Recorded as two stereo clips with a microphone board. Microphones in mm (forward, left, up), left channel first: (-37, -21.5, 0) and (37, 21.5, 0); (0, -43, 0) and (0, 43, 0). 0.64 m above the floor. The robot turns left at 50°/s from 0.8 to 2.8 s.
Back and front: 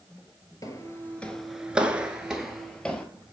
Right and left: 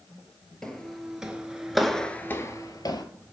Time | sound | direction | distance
0.6 | footsteps | 170° right | 0.8 m